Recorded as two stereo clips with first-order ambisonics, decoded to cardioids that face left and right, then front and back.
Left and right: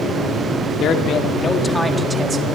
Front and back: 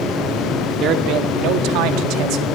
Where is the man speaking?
135° left, 2 m; by 2.5 s 150° right, 1.8 m.